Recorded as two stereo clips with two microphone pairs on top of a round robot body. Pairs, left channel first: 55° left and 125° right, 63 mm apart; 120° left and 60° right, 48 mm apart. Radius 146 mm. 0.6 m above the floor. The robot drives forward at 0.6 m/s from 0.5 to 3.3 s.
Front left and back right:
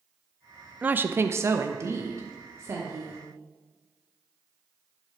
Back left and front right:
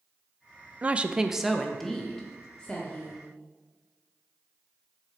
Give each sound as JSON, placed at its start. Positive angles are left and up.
{"t": 0.8, "sound": "a woman speaking", "azimuth_deg": -80, "distance_m": 0.6}